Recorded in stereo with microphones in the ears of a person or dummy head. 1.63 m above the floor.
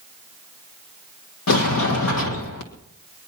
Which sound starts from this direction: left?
A sliding door, at 1.5 s.